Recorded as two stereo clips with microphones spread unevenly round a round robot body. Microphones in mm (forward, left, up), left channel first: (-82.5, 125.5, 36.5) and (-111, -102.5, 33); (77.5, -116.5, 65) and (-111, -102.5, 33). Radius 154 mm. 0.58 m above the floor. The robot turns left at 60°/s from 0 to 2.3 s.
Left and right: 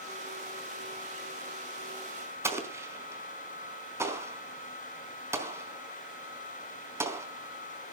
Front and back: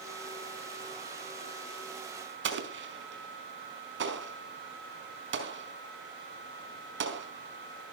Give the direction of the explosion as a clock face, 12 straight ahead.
6 o'clock.